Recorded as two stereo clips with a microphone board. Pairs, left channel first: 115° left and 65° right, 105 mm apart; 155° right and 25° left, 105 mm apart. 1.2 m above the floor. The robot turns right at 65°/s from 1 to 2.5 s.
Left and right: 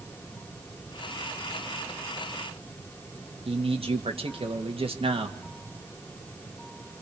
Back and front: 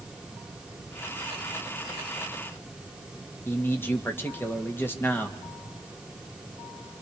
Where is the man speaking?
90° right, 2 m.